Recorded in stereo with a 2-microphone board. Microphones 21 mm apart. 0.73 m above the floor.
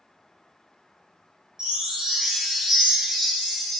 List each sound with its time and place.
1.6 s a chime: 35° right (ahead or behind), 0.9 m